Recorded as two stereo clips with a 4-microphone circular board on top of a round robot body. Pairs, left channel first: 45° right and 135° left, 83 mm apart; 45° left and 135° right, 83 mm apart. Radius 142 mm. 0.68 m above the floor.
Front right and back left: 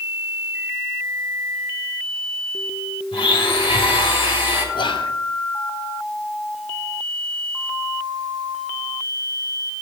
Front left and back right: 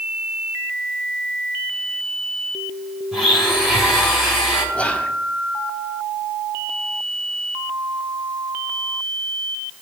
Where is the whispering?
30° right, 2 m.